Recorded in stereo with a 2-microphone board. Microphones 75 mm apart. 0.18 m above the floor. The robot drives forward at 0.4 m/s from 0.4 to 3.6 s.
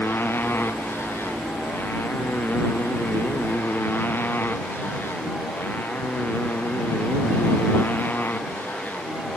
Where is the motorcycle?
30° left (ahead or behind); by 9.4 s 25° left (ahead or behind).